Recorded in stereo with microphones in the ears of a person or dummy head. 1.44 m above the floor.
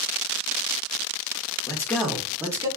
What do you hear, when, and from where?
1.7 s a man speaking: 20° left (ahead or behind), 0.6 m; by 2.7 s 20° right (ahead or behind), 0.8 m